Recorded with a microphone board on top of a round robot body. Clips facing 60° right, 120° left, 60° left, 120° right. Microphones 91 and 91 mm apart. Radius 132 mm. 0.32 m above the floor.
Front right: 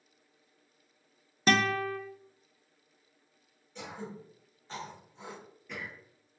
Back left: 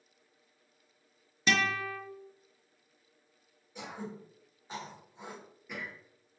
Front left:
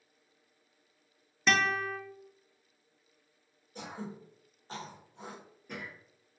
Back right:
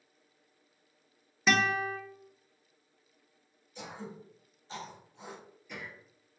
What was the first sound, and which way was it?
A guitar, 35° right.